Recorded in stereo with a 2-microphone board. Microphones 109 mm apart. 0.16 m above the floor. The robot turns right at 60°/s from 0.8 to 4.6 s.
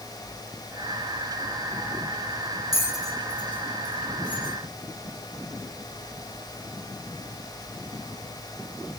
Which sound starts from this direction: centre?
A bell, at 2.7 s.